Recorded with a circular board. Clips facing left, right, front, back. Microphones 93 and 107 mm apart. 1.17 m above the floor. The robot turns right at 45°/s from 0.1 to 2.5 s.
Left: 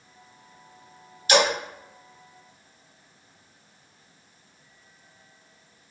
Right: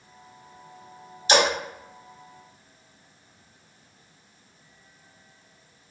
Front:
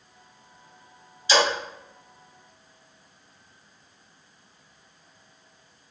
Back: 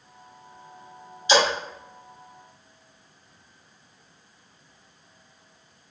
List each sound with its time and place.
1.3 s a splash: 125° right, 1.1 m; by 1.5 s 115° right, 1.1 m